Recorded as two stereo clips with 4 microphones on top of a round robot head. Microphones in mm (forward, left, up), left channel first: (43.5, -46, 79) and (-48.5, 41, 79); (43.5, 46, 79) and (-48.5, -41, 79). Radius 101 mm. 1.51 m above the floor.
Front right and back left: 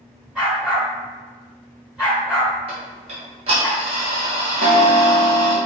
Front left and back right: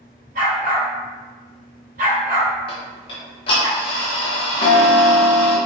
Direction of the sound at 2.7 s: 90° left.